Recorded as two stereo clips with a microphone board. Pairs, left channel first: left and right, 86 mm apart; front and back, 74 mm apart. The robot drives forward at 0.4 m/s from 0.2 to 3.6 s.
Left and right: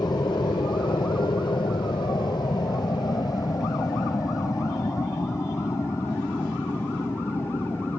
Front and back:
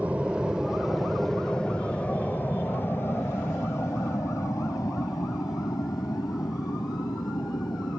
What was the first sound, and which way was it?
An aircraft, 110° left.